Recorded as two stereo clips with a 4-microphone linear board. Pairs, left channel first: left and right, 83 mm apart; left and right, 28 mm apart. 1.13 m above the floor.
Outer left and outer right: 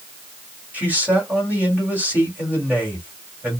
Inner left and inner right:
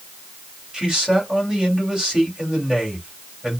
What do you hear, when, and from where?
0.7 s a man speaking: 20° right (ahead or behind), 2.5 m